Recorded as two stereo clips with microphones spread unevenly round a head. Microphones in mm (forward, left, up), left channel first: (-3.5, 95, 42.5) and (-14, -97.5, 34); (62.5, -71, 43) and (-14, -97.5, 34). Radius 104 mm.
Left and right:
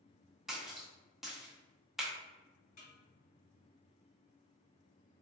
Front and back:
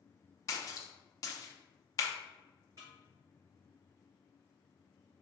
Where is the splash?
5° right, 0.5 m.